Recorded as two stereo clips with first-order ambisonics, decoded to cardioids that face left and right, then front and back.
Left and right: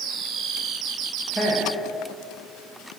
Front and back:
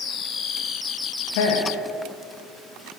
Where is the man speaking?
5° right, 1.0 m.